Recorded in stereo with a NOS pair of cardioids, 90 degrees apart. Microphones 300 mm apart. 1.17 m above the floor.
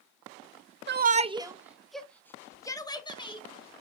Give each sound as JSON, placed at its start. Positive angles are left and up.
{"t": 0.9, "sound": "a shout", "azimuth_deg": -35, "distance_m": 0.8}